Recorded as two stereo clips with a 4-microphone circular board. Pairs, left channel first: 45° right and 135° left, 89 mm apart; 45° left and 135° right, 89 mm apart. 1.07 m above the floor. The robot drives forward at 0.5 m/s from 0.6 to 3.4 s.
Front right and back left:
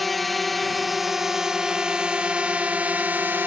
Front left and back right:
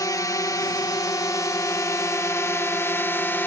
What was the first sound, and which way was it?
A drone, 45° left.